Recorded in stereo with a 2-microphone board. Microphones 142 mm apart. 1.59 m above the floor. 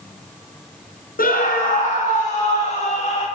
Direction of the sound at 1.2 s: 80° left.